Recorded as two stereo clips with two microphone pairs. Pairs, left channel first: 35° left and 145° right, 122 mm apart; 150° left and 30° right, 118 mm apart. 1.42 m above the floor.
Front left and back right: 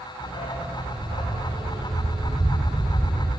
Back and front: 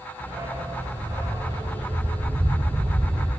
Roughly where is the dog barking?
Ahead left.